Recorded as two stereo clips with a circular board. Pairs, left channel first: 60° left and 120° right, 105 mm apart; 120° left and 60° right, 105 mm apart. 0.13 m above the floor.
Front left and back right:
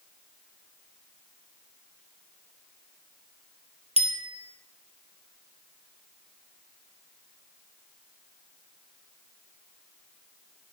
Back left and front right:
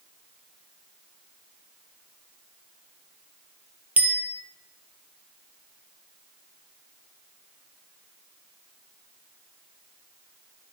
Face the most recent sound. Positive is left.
turn(degrees=-135)